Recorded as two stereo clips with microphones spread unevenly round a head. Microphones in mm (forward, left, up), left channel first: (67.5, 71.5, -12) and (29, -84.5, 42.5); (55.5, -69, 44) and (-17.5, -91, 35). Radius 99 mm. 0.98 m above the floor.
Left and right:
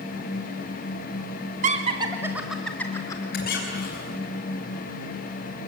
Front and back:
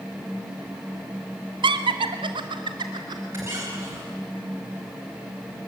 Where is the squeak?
125° left, 4 m.